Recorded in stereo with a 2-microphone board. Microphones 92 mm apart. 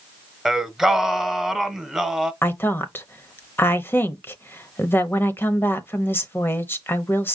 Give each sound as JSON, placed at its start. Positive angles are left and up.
{"t": 0.5, "sound": "singing", "side_deg": -5, "distance_m": 0.9}
{"t": 2.4, "sound": "a woman speaking", "side_deg": 25, "distance_m": 0.9}